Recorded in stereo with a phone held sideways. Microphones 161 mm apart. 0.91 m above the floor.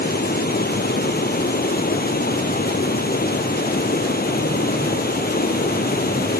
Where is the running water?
75° left (ahead or behind).